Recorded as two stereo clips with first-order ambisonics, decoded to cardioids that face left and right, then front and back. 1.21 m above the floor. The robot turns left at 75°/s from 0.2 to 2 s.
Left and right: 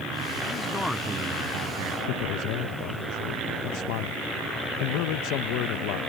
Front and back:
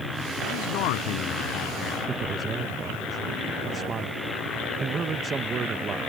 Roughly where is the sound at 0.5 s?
Ahead left.